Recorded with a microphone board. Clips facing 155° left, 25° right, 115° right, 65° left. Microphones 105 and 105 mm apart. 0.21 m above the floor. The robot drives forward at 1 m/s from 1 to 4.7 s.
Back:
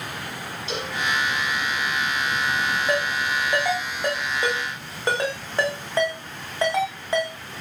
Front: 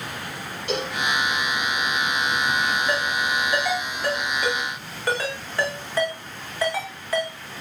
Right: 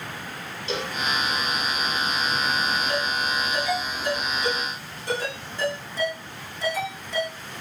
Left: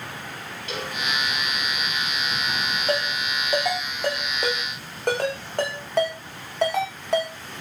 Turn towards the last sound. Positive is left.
turn(degrees=90)